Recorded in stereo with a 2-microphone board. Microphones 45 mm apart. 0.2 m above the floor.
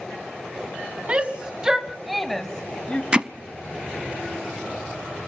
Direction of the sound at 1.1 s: 30° right (ahead or behind).